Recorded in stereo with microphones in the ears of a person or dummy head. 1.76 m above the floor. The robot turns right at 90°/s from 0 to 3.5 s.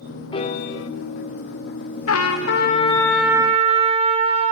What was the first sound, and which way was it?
A piano, 30° left.